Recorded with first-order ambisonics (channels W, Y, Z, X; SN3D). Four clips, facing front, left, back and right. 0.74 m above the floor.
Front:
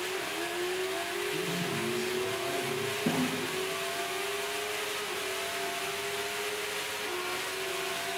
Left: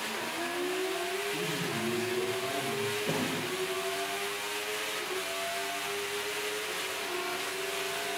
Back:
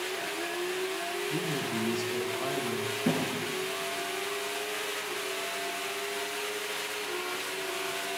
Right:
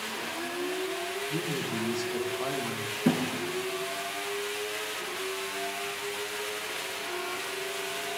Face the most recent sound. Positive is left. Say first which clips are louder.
# right 11 dB, back 2 dB
turn(degrees=-90)